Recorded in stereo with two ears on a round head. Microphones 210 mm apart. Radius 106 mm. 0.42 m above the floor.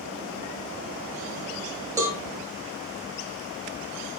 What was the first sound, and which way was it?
A cowbell, 15° right (ahead or behind).